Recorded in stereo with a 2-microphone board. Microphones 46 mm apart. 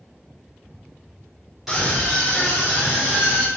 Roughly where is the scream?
Centre.